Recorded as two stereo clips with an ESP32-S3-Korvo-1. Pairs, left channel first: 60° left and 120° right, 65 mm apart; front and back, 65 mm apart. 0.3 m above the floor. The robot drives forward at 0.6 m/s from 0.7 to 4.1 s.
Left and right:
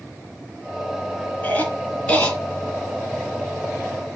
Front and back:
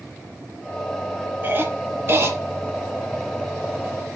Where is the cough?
125° left, 3 m; by 2.4 s 135° left, 3.5 m.